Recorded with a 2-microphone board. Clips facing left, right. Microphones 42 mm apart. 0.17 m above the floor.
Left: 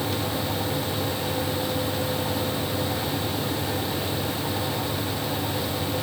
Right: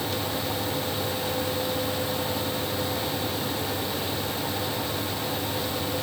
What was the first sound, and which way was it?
Only background noise.